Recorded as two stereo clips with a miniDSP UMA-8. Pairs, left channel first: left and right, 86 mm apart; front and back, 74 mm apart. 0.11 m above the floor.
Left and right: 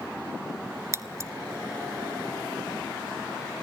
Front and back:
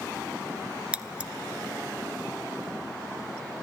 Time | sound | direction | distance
0.9 | scissors | 115° right | 0.6 m